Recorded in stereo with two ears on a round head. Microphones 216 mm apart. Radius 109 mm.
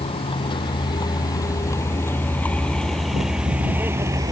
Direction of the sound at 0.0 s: 25° left (ahead or behind).